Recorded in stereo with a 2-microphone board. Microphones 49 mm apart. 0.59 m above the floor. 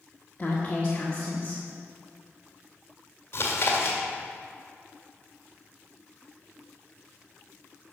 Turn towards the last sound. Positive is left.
turn(degrees=55)  # may be behind; listen again after turning